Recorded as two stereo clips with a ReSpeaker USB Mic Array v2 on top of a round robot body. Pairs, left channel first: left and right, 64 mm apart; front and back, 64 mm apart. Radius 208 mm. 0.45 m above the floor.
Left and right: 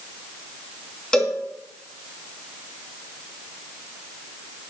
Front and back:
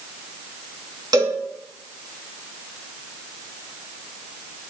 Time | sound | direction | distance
1.1 | a cowbell | 170° left | 4 m